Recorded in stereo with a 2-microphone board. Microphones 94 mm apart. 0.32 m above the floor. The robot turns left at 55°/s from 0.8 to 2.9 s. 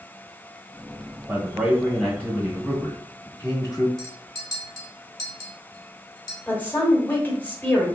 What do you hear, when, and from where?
1.3 s a man speaking: 15° right (ahead or behind), 1.3 m; by 3.9 s 20° left (ahead or behind), 1.3 m
4.0 s a clink: 40° left (ahead or behind), 1.1 m
6.5 s a woman speaking: 20° left (ahead or behind), 1.2 m